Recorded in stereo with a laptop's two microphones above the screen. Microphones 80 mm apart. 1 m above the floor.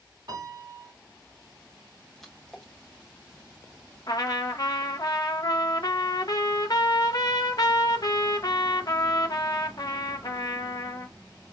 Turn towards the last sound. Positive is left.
turn(degrees=50)  # may be behind; listen again after turning